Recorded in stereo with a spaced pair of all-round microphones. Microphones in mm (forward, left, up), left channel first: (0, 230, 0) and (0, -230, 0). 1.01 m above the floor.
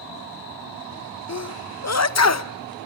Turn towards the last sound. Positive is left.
turn(degrees=35)  # may be behind; listen again after turning